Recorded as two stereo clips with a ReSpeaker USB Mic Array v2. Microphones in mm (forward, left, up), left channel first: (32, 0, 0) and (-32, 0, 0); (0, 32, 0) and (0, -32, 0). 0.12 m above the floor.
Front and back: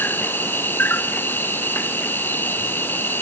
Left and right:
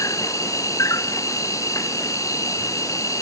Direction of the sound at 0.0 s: 55° left.